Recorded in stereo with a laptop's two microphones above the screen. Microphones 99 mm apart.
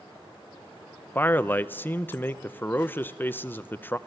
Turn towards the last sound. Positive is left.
turn(degrees=20)  # may be behind; listen again after turning